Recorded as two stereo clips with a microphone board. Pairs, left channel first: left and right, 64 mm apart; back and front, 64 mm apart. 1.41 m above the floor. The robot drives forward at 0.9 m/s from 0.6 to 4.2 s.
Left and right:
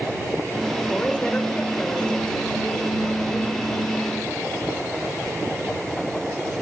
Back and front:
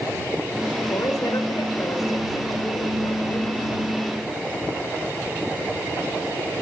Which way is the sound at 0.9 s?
160° left.